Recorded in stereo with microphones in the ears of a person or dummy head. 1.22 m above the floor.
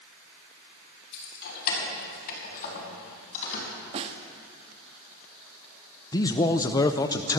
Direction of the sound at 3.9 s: 40° right (ahead or behind).